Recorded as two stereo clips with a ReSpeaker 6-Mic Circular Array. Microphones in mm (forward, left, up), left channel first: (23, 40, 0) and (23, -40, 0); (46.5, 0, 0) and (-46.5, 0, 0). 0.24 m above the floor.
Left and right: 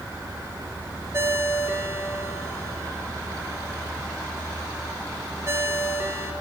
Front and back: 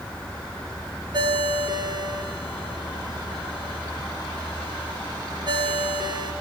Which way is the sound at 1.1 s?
145° right.